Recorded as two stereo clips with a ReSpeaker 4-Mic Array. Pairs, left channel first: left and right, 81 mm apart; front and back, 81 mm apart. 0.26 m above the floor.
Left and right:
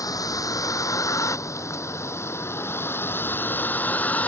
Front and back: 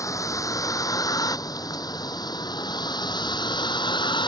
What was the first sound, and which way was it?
A vehicle, 50° left.